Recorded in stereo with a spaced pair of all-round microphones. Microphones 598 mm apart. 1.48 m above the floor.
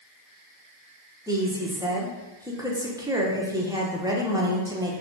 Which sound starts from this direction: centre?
A woman speaking, at 1.3 s.